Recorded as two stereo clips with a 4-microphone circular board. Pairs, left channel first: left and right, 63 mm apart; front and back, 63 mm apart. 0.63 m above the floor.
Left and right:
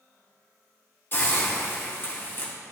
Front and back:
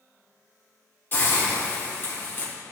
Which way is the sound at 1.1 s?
50° left.